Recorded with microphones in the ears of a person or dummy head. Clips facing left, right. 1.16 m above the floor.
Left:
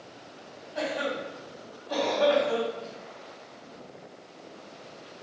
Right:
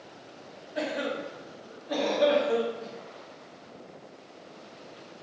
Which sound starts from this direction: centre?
A cough, at 0.8 s.